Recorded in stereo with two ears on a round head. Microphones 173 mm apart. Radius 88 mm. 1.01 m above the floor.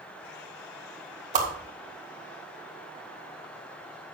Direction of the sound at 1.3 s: 40° right (ahead or behind).